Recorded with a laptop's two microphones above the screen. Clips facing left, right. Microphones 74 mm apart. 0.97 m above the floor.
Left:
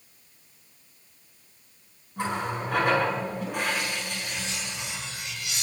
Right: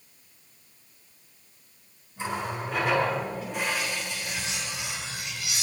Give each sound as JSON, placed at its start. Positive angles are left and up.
{"t": 2.2, "sound": "a running tap", "side_deg": 60, "distance_m": 7.5}
{"t": 4.2, "sound": "cutlery clinking", "side_deg": -5, "distance_m": 3.5}